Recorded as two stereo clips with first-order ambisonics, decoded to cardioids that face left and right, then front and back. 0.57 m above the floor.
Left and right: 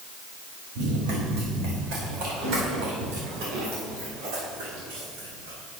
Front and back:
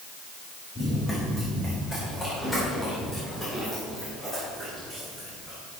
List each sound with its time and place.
0.8 s running footsteps: 80° right, 6.5 m; by 5.6 s 95° right, 11.5 m